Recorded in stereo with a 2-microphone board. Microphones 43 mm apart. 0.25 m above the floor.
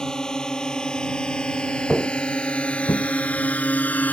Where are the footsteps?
5° left (ahead or behind); by 3.0 s 65° left (ahead or behind).